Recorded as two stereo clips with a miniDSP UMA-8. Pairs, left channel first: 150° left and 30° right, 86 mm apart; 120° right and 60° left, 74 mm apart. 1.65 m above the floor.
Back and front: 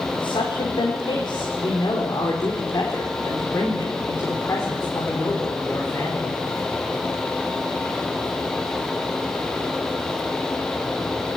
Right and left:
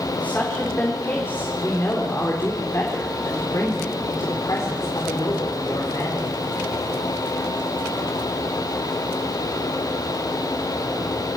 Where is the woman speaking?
170° left, 4 m; by 6.4 s 140° right, 4.5 m.